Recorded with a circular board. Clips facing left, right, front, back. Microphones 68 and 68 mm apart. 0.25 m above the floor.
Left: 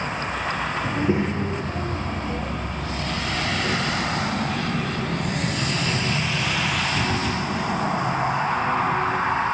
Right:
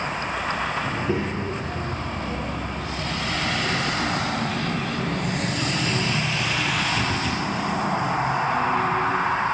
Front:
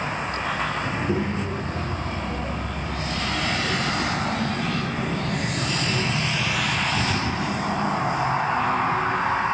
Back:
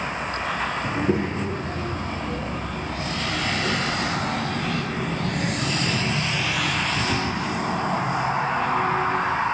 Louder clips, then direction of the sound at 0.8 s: Left 3 dB, back 2 dB; 145° left.